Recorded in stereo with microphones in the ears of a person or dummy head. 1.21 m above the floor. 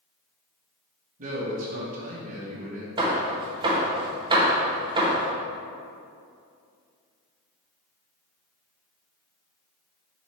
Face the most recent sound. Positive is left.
turn(degrees=-20)  # may be behind; listen again after turning